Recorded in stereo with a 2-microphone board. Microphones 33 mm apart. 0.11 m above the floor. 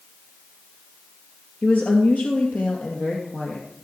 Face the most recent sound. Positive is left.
turn(degrees=70)  # may be behind; listen again after turning